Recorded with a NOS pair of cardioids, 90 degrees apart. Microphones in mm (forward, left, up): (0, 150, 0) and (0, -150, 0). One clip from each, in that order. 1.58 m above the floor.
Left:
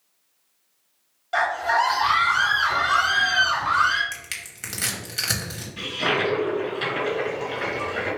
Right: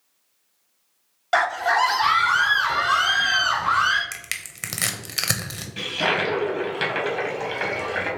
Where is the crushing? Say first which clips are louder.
Right 2 dB; 40° right, 0.9 m.